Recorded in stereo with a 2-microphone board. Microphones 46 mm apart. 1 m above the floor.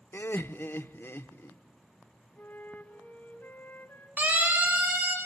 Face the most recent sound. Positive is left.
turn(degrees=-45)  # may be behind; listen again after turning